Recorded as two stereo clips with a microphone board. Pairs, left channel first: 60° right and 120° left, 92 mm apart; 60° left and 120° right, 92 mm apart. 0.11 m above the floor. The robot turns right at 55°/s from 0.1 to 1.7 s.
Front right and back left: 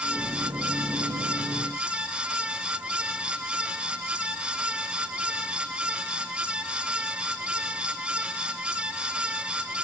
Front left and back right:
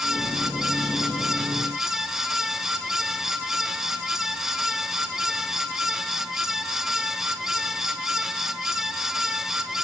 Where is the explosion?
I don't hear an explosion.